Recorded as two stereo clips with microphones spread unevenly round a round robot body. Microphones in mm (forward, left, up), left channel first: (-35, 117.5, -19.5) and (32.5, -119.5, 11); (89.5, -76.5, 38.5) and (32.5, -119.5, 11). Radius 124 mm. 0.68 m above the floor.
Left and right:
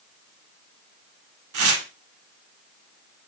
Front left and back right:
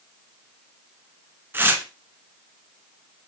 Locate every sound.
1.5 s tearing paper: 80° right, 2 m